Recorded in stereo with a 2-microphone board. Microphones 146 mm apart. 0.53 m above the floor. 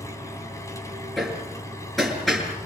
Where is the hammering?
Centre (ahead or behind), 6.5 m.